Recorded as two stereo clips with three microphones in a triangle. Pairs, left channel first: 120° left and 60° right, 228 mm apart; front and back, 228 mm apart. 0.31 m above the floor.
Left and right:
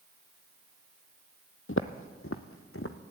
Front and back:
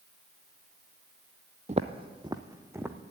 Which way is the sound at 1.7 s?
125° left.